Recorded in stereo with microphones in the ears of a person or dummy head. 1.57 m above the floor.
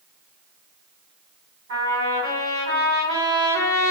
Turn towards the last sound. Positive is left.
turn(degrees=-45)  # may be behind; listen again after turning